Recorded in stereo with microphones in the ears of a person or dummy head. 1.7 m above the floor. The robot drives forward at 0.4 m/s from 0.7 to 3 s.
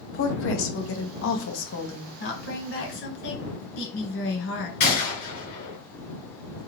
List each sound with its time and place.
0.1 s a woman speaking: 75° left (ahead or behind), 0.9 m; by 2.1 s 65° left (ahead or behind), 0.9 m
2.2 s a woman speaking: 65° left (ahead or behind), 1.7 m; by 4.7 s 75° left (ahead or behind), 1.6 m
4.8 s a gunshot: 45° left (ahead or behind), 2.0 m